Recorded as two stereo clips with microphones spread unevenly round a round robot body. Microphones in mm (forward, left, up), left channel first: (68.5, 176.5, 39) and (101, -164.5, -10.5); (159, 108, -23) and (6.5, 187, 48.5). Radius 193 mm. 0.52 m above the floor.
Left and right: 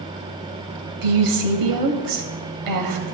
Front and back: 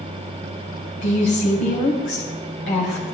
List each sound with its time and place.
1.0 s a woman speaking: 75° right, 2 m